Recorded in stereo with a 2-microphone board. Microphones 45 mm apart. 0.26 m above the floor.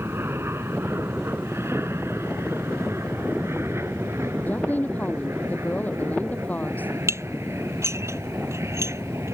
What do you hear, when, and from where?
0.0 s an aircraft: 60° right (ahead or behind); by 9.3 s 75° right (ahead or behind)
4.5 s a woman speaking: 40° left (ahead or behind)
7.1 s dishes clattering: 85° right